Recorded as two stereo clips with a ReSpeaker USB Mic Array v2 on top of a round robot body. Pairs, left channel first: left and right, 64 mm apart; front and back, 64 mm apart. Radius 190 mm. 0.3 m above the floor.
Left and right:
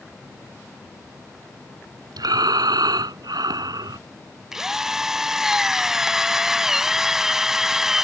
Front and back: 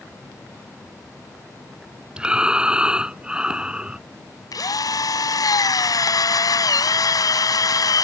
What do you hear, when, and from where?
2.2 s breathing: 105° right
4.5 s a drill: 5° right